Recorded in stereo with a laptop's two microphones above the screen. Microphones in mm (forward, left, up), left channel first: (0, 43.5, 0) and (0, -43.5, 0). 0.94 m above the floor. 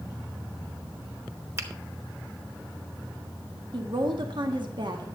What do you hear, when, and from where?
1.6 s a finger snap: 30° right (ahead or behind), 1.0 m
3.7 s a woman speaking: 60° right (ahead or behind), 1.3 m